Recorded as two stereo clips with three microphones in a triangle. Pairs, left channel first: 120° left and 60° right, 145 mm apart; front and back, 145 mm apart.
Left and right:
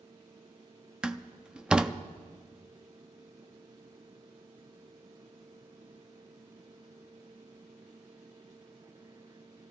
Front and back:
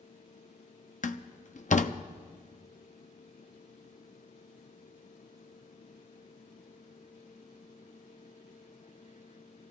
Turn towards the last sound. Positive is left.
turn(degrees=25)